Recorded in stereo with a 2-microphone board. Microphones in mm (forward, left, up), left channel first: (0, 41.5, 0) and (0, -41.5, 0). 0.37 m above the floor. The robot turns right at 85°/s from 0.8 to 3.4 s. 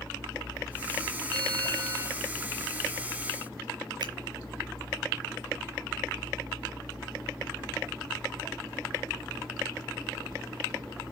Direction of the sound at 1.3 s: 105° right.